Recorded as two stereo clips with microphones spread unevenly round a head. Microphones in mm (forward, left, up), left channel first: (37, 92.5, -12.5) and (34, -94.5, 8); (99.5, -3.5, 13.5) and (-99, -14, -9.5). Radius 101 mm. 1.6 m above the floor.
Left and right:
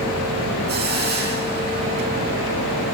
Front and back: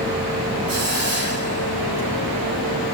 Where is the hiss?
135° right, 8 m.